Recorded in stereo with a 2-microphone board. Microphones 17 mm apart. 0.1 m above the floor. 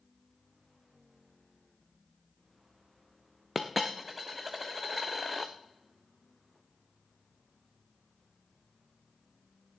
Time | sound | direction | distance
3.5 | a dropped coin | 5° right (ahead or behind) | 1.2 m